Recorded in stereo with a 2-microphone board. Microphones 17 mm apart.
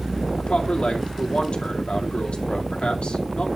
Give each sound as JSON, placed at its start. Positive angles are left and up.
{"t": 0.4, "sound": "a man speaking", "side_deg": 80, "distance_m": 2.0}